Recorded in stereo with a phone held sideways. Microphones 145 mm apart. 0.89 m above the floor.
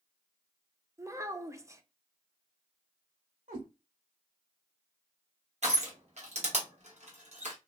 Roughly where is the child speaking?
Right.